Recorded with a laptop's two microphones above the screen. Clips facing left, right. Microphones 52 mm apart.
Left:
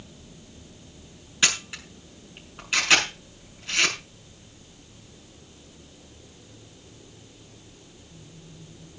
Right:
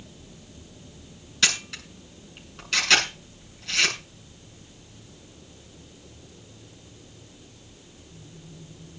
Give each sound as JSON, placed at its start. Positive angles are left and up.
{"t": 1.4, "sound": "a camera shutter", "side_deg": 15, "distance_m": 6.5}